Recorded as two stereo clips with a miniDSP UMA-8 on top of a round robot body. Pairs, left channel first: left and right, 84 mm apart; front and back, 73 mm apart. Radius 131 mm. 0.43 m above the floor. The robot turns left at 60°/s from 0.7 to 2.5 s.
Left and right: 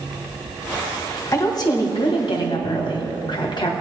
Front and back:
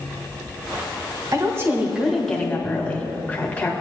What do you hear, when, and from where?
1.3 s a woman speaking: 140° left, 1.7 m; by 3.7 s 70° left, 1.7 m